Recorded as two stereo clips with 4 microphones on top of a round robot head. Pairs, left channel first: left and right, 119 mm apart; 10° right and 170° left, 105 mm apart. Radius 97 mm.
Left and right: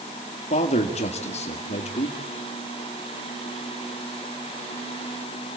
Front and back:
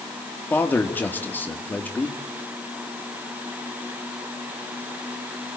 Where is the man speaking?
60° left, 2.5 m.